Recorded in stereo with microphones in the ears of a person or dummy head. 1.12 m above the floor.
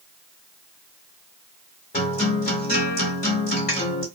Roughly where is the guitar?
Left.